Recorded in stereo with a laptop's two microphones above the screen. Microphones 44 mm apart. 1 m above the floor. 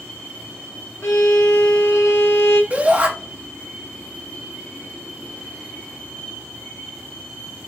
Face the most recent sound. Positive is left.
turn(degrees=-30)  # may be behind; listen again after turning